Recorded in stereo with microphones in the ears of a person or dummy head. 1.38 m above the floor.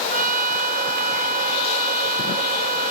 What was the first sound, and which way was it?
A trumpet, 40° right (ahead or behind).